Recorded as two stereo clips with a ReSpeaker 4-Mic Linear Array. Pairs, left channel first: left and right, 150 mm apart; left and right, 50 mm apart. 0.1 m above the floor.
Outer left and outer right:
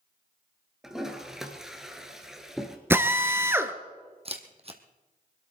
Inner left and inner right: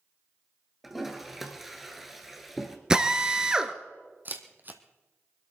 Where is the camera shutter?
40° right (ahead or behind), 1.4 m.